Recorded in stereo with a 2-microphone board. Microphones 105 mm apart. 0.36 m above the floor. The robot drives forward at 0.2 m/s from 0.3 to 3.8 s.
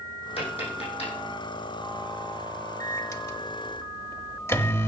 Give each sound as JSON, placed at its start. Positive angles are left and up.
{"t": 0.4, "sound": "tapping", "side_deg": 65, "distance_m": 7.5}
{"t": 2.8, "sound": "a microwave", "side_deg": 30, "distance_m": 0.8}